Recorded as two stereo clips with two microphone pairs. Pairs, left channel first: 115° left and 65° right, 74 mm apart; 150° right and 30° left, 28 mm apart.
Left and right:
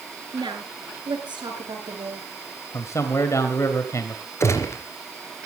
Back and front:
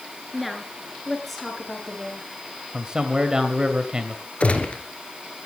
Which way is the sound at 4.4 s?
165° left.